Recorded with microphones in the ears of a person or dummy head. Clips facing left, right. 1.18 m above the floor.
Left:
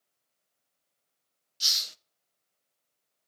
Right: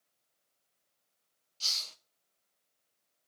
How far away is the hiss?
About 0.7 m.